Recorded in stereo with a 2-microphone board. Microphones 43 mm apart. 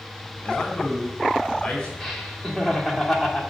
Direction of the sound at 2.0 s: Centre (ahead or behind).